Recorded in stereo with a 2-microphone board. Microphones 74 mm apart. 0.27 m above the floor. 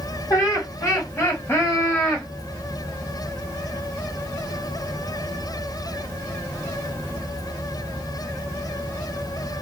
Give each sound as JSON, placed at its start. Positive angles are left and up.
{"t": 0.3, "sound": "laughter", "side_deg": 45, "distance_m": 1.5}